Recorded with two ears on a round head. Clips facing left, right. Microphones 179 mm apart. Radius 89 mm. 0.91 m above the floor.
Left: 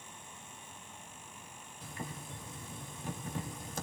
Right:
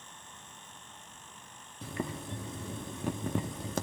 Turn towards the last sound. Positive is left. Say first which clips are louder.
# right 8 dB
turn(degrees=-60)  # may be behind; listen again after turning